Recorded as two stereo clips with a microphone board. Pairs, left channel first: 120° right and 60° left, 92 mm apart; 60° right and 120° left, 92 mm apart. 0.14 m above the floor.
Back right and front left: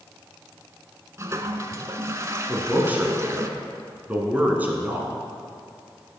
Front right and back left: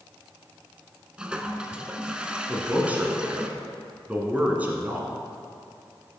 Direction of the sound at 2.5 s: 85° left.